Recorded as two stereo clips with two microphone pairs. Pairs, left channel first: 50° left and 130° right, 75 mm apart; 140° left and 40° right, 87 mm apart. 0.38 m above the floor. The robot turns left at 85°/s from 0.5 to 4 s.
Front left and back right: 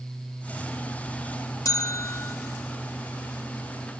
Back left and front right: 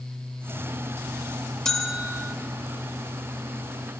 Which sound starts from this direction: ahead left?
A bell, at 1.6 s.